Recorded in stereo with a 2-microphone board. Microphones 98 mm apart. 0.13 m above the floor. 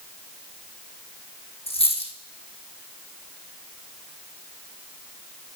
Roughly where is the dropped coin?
Left.